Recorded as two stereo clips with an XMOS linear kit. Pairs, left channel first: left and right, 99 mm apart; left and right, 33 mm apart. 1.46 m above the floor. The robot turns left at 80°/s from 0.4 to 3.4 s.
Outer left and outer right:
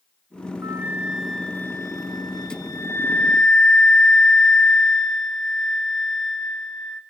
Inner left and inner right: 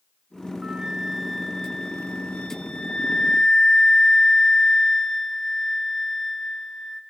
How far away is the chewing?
No chewing in this recording.